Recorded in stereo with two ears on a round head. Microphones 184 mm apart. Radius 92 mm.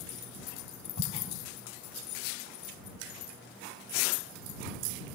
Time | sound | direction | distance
1.0 | an explosion | 65° left (ahead or behind) | ?